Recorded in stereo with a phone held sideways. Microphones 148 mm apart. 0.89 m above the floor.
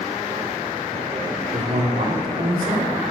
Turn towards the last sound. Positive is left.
turn(degrees=-80)